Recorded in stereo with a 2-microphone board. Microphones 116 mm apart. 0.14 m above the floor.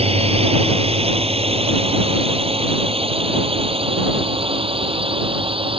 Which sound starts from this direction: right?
A drone, at 0.0 s.